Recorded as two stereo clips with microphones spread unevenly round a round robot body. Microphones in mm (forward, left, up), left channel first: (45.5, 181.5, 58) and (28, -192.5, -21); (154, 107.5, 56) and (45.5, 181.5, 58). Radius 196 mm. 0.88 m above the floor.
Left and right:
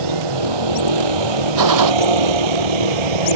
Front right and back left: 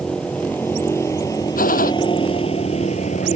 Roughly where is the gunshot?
Ahead right.